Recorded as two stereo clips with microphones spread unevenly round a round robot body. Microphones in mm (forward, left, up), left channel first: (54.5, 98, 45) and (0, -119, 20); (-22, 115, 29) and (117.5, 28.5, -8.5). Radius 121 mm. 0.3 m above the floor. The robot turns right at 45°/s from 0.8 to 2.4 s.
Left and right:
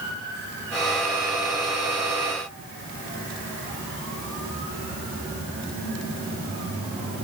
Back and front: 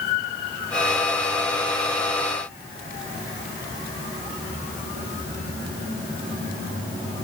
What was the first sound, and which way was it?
Only background noise.